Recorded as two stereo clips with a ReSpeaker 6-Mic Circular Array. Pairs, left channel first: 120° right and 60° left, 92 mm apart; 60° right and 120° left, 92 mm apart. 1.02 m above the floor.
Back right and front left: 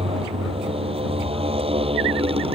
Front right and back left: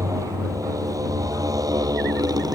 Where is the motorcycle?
65° left; by 2.5 s 70° left.